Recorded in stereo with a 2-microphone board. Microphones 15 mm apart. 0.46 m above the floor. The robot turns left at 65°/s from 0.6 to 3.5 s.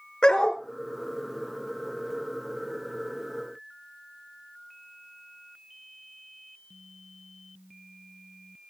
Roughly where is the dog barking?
Left.